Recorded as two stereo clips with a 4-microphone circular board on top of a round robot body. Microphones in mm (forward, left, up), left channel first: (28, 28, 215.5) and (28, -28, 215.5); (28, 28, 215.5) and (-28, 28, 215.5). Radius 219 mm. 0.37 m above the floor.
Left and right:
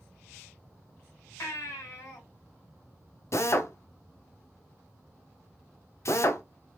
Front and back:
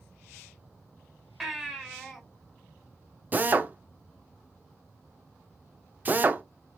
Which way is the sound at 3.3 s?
120° left.